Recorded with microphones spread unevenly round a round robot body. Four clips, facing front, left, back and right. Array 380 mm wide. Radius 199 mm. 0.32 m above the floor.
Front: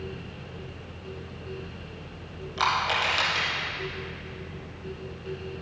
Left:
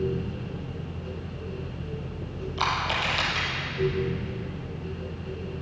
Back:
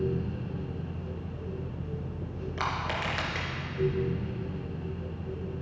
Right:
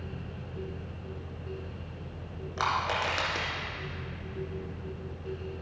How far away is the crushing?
About 2 m.